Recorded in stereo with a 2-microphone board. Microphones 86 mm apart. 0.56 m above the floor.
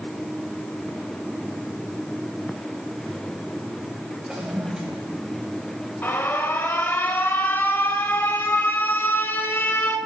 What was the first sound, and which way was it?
A toilet flushing, 10° right (ahead or behind).